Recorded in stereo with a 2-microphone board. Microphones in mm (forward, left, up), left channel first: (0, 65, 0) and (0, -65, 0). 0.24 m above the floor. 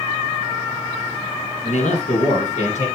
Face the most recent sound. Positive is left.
turn(degrees=65)  # may be behind; listen again after turning